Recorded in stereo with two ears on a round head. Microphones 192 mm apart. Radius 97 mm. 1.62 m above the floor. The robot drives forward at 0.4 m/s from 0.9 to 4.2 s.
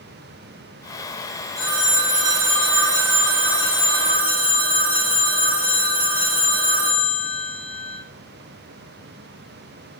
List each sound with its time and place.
1.6 s a phone ringing: 15° right (ahead or behind), 0.6 m; by 8.0 s 10° right (ahead or behind), 1.1 m